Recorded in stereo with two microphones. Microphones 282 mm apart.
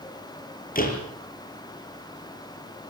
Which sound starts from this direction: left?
A door slam, at 0.8 s.